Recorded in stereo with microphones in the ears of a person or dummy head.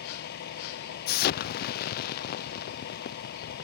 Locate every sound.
0.0 s a vehicle: 55° left (ahead or behind)
1.1 s an explosion: 55° left (ahead or behind)